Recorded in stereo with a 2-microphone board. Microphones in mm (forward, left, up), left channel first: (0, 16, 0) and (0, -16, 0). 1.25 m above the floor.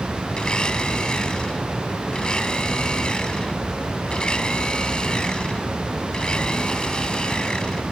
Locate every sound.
0.4 s a blender: 30° left (ahead or behind)